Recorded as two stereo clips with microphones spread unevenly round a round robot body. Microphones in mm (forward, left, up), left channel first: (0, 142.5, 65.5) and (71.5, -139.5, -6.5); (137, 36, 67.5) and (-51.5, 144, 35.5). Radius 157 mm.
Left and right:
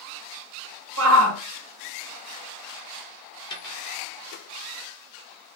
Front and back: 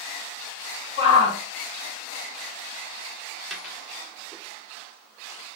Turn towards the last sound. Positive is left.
turn(degrees=50)